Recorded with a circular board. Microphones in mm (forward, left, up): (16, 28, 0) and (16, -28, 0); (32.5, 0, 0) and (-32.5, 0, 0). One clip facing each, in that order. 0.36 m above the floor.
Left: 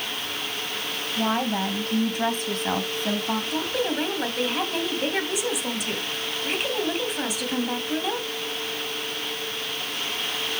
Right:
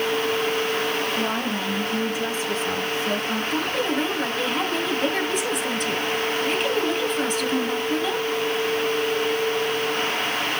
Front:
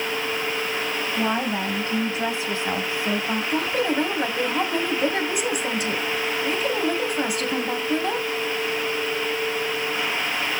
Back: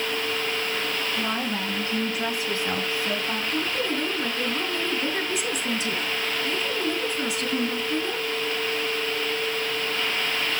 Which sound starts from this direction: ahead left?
A woman speaking, at 1.2 s.